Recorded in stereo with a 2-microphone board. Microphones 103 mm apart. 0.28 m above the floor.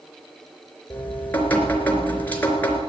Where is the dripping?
20° left (ahead or behind), 3 m.